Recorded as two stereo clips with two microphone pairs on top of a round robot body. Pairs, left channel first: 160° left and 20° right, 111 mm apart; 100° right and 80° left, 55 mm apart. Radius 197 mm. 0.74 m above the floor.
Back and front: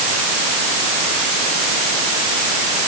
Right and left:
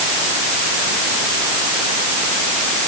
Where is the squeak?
I don't hear a squeak.